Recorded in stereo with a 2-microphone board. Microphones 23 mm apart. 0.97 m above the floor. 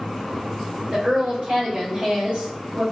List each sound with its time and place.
0.9 s a woman speaking: 70° right (ahead or behind), 1.6 m